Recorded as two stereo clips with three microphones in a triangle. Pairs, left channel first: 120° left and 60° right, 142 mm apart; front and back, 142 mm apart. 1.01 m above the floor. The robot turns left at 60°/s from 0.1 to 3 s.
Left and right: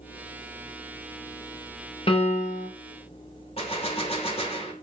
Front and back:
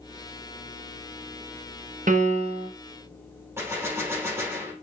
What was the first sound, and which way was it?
A piano, 165° left.